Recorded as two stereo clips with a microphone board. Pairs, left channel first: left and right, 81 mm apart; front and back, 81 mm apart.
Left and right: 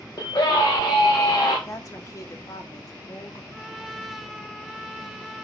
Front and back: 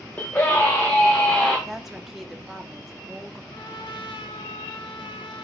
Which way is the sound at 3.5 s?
Straight ahead.